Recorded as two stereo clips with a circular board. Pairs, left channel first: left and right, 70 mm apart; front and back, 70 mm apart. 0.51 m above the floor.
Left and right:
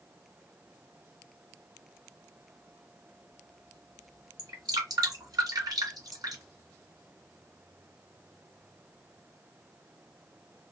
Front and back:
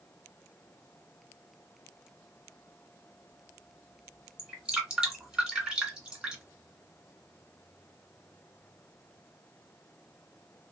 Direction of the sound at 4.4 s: 100° right.